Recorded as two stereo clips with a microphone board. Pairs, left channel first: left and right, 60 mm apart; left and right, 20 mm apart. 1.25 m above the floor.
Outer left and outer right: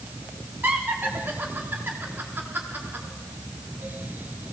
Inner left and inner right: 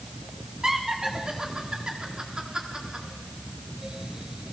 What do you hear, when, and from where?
0.6 s laughter: 35° right (ahead or behind), 4 m